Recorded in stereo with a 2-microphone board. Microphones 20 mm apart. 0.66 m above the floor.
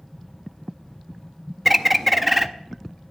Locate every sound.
1.6 s a bird: 5° right (ahead or behind), 0.6 m